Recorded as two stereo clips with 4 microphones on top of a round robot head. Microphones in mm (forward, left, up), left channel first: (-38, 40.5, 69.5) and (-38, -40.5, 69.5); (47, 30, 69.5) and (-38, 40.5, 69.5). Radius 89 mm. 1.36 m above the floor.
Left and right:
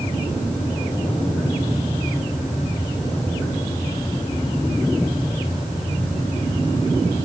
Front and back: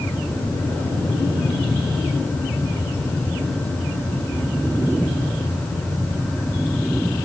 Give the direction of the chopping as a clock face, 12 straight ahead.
No chopping in this recording.